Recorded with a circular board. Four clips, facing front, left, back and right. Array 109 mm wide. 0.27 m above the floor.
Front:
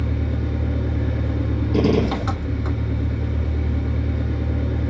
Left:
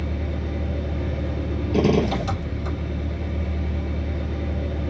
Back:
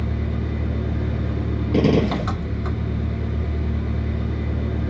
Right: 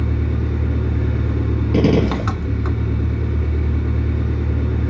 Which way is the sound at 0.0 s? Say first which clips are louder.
Right 5 dB, front 1 dB; 90° right.